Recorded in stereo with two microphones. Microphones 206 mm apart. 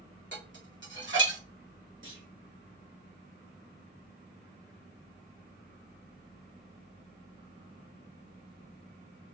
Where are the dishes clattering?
65° right (ahead or behind), 1.6 m.